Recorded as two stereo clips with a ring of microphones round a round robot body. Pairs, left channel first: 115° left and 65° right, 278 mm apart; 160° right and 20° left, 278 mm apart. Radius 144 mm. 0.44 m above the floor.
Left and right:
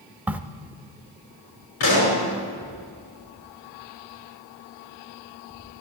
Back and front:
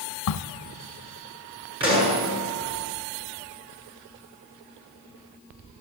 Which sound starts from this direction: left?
A pop, at 1.8 s.